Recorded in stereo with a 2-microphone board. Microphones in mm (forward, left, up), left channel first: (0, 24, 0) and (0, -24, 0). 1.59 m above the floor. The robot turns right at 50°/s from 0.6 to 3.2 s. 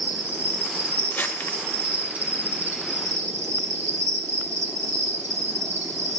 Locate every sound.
0.0 s an insect: 125° right, 3 m; by 6.2 s 5° left, 3 m
1.1 s crumpling: 35° left (ahead or behind), 0.9 m; by 1.6 s 45° left (ahead or behind), 0.9 m